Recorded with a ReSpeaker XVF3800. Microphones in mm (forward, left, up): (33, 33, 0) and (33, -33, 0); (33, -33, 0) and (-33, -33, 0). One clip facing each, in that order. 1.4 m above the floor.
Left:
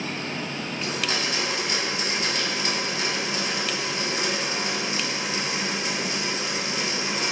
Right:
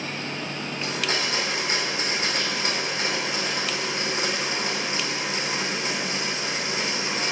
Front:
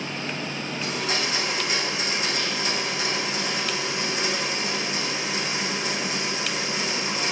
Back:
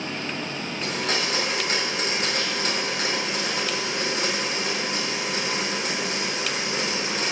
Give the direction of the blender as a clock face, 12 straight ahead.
5 o'clock.